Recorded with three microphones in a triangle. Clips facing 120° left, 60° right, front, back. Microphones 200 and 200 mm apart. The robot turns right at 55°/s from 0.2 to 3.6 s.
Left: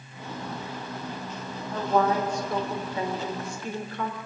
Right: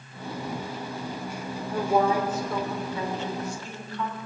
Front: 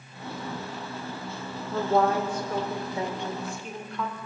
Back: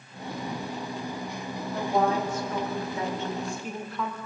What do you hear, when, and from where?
1.7 s a woman speaking: 10° right, 3 m; by 4.2 s 95° left, 3 m